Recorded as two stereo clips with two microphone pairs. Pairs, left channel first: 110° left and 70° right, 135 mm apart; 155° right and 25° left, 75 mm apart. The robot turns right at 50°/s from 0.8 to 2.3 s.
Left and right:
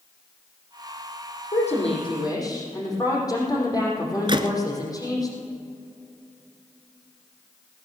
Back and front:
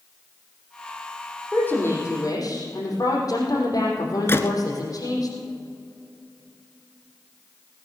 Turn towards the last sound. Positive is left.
turn(degrees=-110)